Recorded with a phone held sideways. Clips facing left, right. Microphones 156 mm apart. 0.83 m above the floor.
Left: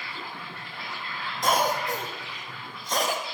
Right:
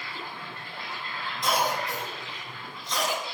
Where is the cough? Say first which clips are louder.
Left 3 dB; 45° left (ahead or behind), 1.0 m.